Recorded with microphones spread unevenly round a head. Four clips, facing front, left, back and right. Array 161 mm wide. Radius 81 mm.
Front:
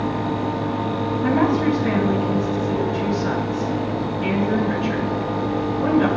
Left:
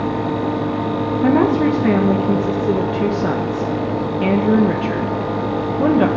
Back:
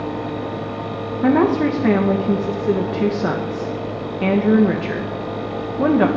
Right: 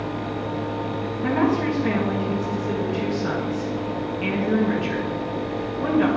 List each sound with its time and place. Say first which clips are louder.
1.2 s a woman speaking: left 6 dB, back 4 dB; 135° left, 1.7 m